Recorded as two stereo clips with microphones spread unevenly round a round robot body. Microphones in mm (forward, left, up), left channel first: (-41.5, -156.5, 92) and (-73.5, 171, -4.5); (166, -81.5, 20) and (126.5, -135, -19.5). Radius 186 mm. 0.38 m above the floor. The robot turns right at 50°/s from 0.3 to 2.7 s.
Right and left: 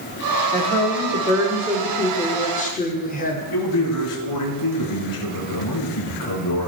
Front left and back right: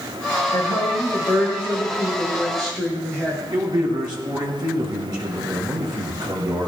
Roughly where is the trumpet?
No trumpet in this recording.